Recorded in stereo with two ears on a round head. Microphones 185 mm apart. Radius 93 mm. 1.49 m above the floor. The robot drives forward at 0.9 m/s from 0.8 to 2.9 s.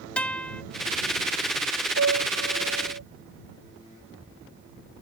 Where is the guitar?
5° left (ahead or behind).